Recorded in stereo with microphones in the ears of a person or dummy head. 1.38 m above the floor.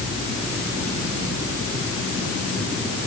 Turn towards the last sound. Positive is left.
No sound to turn to.